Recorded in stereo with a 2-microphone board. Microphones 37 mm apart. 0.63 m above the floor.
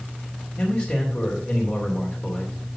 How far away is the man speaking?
About 2.5 m.